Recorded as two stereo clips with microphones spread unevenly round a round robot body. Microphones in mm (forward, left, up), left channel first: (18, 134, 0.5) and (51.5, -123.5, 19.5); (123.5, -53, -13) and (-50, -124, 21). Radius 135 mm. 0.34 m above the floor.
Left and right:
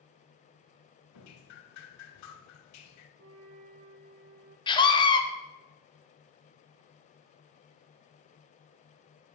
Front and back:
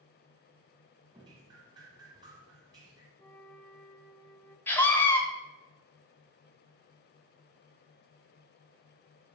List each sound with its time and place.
1.1 s dripping: 125° left, 0.7 m
3.2 s a flute: 55° right, 0.8 m
4.7 s a scream: 60° left, 0.9 m